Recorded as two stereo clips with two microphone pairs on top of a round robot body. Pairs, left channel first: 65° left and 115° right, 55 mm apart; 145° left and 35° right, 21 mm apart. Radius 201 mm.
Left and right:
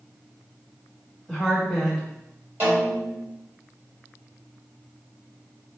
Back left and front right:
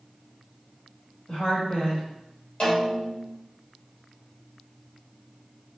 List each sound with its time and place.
1.3 s a woman speaking: 155° left, 2 m
2.6 s a snare drum: 165° right, 2 m